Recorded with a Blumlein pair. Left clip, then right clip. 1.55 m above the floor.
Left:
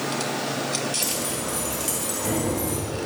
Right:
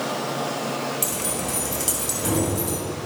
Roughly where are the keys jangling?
Ahead.